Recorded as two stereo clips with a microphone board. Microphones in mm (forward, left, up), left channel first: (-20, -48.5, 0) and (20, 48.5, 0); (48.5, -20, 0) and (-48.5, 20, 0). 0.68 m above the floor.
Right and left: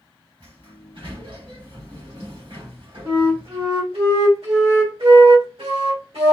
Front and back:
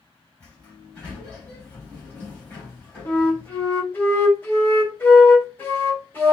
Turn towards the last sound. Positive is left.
turn(degrees=50)